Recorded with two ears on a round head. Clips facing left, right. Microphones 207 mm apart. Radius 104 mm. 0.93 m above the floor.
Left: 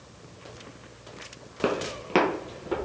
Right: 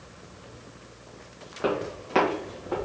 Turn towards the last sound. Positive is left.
turn(degrees=60)  # may be behind; listen again after turning